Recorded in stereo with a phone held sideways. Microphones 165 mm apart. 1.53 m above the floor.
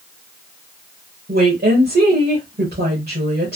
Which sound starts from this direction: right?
A woman speaking, at 1.3 s.